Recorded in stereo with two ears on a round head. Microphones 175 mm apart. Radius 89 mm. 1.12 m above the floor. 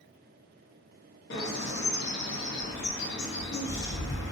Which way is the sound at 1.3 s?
55° left (ahead or behind).